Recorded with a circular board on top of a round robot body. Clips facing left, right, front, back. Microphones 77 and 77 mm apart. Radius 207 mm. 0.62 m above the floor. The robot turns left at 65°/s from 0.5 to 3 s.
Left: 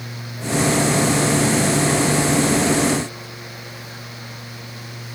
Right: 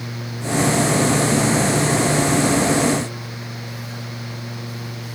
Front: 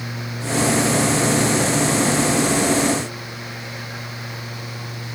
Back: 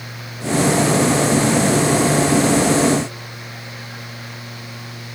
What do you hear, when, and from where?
Only background noise.